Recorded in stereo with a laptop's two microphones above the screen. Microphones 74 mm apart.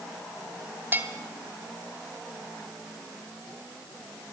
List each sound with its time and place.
0.9 s a bell: 25° right (ahead or behind), 2.5 m